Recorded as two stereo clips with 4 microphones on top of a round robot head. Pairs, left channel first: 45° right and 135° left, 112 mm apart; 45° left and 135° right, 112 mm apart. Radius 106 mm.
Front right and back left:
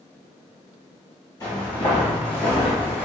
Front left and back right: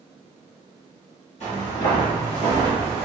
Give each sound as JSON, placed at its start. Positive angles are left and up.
{"t": 1.4, "sound": "footsteps", "azimuth_deg": 15, "distance_m": 1.8}